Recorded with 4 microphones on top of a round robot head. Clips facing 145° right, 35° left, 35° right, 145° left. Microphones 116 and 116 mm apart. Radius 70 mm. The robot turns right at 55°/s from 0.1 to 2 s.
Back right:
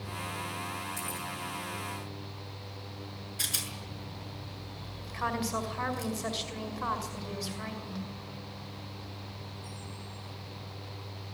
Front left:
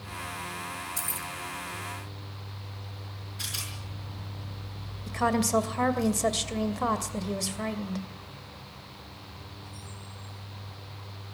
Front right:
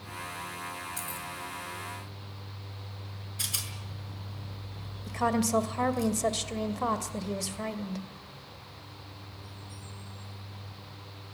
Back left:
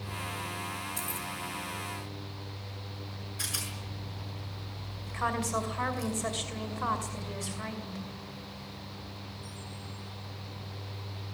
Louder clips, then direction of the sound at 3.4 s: Back right 1 dB, back left 1 dB; 105° right.